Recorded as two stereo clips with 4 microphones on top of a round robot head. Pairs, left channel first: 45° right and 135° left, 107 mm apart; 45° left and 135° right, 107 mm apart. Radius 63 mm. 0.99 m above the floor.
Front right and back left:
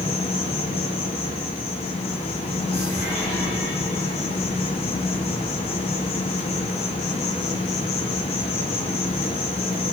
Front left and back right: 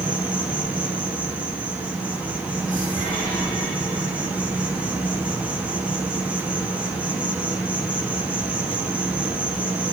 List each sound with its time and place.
0.0 s an insect: 55° right, 2.5 m